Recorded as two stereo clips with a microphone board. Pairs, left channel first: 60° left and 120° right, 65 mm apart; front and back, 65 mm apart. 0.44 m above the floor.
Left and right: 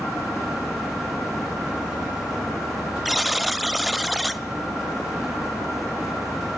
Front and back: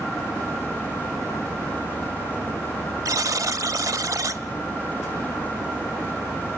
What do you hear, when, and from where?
3.0 s a buzzer: 150° left, 0.6 m